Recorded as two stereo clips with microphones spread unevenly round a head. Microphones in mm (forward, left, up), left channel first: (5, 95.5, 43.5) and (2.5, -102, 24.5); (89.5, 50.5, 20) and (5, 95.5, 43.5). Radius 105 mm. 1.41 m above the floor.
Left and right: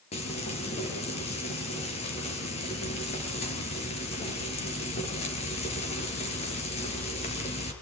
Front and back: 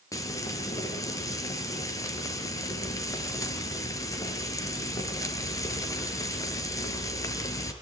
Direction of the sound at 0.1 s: 30° left.